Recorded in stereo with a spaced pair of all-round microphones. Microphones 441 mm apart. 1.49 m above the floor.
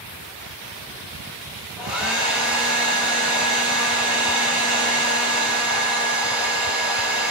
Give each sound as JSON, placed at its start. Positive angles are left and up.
{"t": 1.8, "sound": "a hair dryer", "side_deg": -5, "distance_m": 0.9}